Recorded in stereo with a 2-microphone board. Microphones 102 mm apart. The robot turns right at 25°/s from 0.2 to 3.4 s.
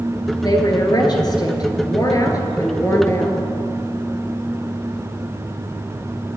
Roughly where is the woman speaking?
Left.